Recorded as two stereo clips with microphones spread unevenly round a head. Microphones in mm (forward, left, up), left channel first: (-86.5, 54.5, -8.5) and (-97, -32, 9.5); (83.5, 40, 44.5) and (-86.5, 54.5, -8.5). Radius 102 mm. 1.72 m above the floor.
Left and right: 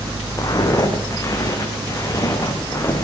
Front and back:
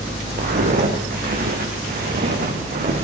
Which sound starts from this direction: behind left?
Footsteps, at 0.4 s.